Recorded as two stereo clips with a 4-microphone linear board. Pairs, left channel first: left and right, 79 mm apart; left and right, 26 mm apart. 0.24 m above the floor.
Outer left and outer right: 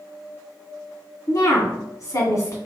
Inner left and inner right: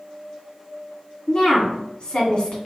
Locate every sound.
1.3 s a woman speaking: 45° left (ahead or behind), 1.8 m